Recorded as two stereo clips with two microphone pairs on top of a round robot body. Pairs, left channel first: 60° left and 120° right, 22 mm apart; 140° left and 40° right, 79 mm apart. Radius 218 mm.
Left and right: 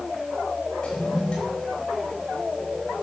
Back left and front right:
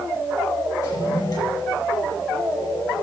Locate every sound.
0.8 s a toilet flushing: 110° left, 5 m